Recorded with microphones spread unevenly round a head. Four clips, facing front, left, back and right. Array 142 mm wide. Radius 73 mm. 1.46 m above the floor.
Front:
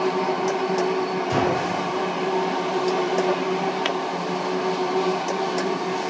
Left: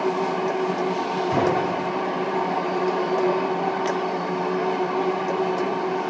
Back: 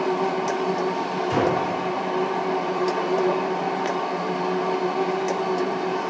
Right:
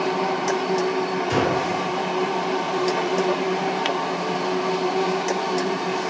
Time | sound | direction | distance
1.3 | a gunshot | 135° right | 5 m